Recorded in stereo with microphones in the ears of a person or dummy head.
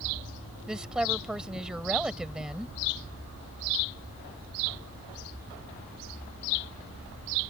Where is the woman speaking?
10° right (ahead or behind).